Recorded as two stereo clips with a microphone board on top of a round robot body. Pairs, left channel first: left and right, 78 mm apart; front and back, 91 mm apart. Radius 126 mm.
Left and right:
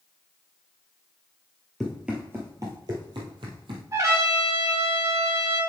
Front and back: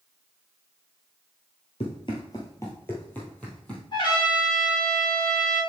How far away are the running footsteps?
About 1.2 m.